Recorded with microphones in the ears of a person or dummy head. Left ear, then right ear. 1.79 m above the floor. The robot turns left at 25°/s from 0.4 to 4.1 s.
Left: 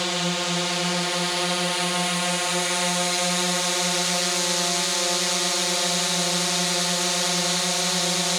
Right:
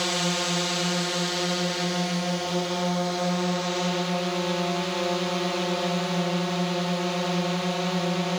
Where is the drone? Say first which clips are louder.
Left 1 dB; 175° left; by 8.4 s 85° left.